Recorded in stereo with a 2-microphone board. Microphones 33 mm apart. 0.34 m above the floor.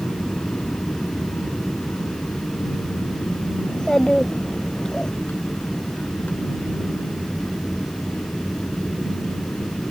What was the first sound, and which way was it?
An aircraft, 60° left (ahead or behind).